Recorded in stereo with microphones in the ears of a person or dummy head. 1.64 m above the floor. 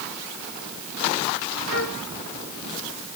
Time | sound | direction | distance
1.7 | a flute | 60° left (ahead or behind) | ?